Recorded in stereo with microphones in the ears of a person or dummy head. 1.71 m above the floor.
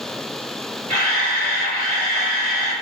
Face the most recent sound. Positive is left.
turn(degrees=-45)  # may be behind; listen again after turning